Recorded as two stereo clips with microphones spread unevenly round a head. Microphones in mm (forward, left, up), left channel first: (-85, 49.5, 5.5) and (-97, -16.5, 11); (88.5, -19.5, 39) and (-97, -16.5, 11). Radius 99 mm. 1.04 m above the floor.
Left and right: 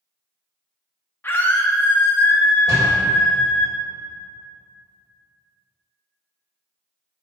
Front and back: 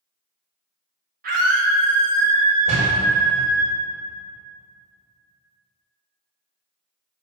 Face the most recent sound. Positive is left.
turn(degrees=-125)